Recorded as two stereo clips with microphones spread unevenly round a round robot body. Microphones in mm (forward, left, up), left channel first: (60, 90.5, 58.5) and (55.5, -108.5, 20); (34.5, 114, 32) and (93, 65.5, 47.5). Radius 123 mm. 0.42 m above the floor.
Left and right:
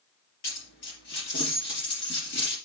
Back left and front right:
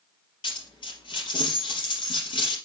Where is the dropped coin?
135° left, 3.5 m.